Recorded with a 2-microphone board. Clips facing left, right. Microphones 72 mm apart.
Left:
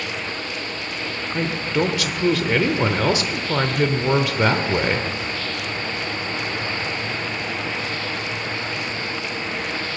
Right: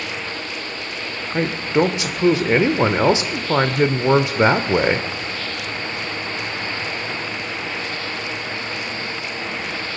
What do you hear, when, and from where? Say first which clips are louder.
1.3 s a man speaking: right 4 dB; 20° right (ahead or behind), 0.8 m